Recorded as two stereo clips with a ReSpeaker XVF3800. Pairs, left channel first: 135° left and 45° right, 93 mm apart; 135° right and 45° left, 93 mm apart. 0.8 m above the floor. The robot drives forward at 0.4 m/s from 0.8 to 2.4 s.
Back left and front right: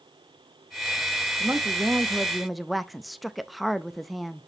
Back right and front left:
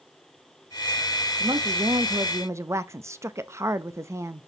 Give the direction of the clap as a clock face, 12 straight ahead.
No clap in this recording.